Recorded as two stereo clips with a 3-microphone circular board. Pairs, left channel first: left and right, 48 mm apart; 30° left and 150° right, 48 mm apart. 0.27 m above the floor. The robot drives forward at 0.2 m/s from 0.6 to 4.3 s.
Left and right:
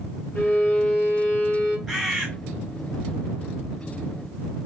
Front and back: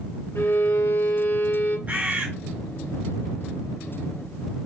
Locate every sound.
0.3 s a violin: 25° left, 1.5 m; by 1.8 s 35° left, 1.3 m
1.9 s a bird: 175° right, 1.3 m